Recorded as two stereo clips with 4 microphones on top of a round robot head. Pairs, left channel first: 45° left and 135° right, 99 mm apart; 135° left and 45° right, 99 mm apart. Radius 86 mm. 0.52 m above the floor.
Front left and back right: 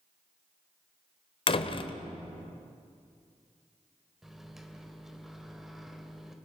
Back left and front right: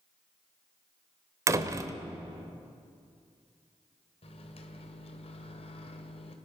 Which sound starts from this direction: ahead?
A door slam, at 1.5 s.